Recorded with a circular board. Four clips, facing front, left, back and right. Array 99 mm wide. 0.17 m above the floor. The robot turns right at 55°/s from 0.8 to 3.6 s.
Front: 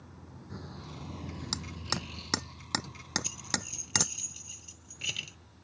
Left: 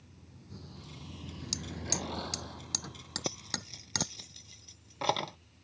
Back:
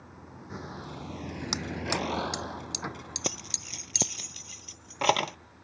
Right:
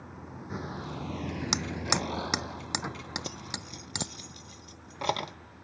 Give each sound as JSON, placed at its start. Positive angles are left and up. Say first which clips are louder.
{"t": 0.0, "sound": "a vehicle", "louder": "right 14 dB, back 4 dB", "azimuth_deg": -110}
{"t": 1.5, "sound": "hammering", "louder": "right 6 dB, back 8 dB", "azimuth_deg": -110}
{"t": 3.2, "sound": "keys jangling", "louder": "even, back 2 dB", "azimuth_deg": 165}